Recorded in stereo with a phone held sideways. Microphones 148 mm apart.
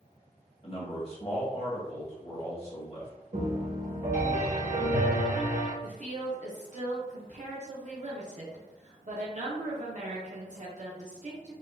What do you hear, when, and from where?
0.6 s a man speaking: 45° left (ahead or behind), 1.6 m
3.3 s a piano: 60° right (ahead or behind), 1.4 m
5.8 s a woman speaking: 55° right (ahead or behind), 0.8 m